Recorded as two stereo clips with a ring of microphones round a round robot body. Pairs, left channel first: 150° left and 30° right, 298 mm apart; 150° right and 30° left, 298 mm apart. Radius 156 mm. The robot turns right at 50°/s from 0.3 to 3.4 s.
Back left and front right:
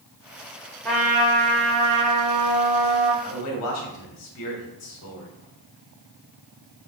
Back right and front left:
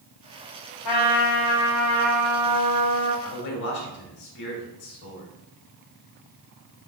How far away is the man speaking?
About 3 m.